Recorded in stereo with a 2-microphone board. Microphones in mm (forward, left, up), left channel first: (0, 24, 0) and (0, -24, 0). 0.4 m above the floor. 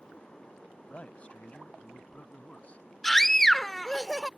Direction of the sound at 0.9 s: 30° left (ahead or behind).